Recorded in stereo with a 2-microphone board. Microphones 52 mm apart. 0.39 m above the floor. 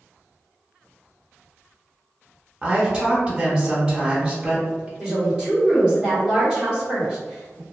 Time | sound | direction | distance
2.6 | a woman speaking | 20° right (ahead or behind) | 0.8 m
5.0 | a woman speaking | 15° right (ahead or behind) | 1.4 m